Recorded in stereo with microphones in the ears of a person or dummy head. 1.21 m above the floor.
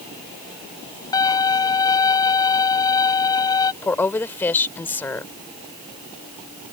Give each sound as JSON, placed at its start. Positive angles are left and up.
{"t": 1.1, "sound": "a violin", "side_deg": 20}
{"t": 3.8, "sound": "a woman speaking", "side_deg": 10}